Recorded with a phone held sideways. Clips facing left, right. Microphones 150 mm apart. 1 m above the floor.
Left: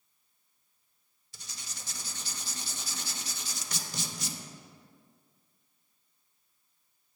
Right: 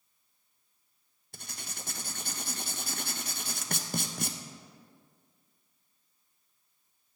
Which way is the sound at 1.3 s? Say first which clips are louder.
Right 5 dB; 55° right (ahead or behind).